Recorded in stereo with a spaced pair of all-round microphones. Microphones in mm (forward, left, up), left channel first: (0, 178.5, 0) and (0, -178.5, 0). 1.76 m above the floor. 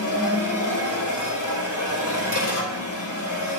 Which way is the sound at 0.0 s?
55° left (ahead or behind).